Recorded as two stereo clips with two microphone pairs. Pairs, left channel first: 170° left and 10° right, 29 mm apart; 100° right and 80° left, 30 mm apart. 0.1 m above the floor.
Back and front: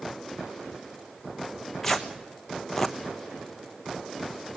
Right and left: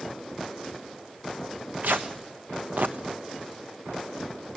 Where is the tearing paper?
90° left, 1.3 m.